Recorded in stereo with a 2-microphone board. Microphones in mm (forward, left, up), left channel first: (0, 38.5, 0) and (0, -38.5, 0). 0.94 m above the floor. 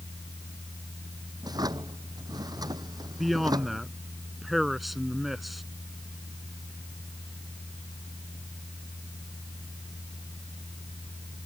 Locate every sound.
1.4 s a drawer: 60° right (ahead or behind)
3.2 s a man speaking: centre (ahead or behind)